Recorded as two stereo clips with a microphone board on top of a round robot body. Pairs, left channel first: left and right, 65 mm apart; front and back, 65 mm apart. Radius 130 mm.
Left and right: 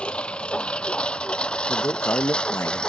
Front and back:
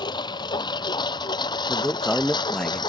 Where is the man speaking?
75° left.